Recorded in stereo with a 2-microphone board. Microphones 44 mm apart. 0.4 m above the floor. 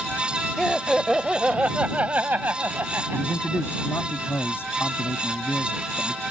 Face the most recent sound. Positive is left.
turn(degrees=65)  # may be behind; listen again after turning